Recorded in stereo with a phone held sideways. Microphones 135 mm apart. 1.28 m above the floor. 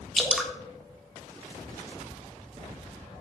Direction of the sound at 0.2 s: Centre (ahead or behind).